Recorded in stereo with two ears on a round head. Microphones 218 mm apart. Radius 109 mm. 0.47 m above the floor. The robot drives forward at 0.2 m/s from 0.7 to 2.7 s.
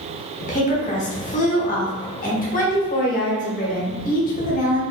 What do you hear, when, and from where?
0.4 s a woman speaking: 30° left (ahead or behind), 1.0 m; by 4.8 s 35° left (ahead or behind), 0.9 m